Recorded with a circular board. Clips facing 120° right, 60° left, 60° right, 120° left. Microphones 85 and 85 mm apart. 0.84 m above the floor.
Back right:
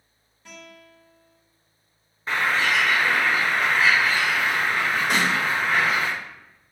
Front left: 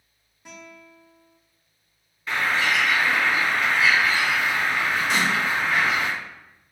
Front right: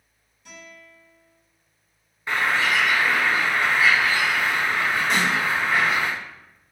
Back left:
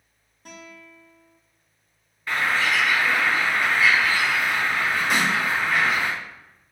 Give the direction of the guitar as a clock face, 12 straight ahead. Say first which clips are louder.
Front left 1 dB, back left 2 dB; 8 o'clock.